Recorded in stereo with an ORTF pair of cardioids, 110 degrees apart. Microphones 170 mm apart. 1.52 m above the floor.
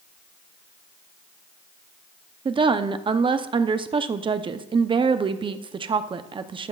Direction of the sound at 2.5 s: 25° right.